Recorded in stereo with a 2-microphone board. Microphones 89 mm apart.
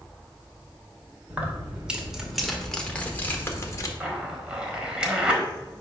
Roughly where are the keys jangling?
Centre.